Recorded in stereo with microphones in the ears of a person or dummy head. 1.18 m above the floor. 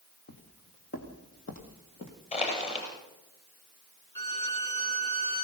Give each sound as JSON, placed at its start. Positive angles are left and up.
{"t": 0.3, "sound": "footsteps", "side_deg": 55, "distance_m": 2.0}
{"t": 2.3, "sound": "crushing", "side_deg": 35, "distance_m": 6.5}
{"t": 4.2, "sound": "a violin", "side_deg": 20, "distance_m": 4.5}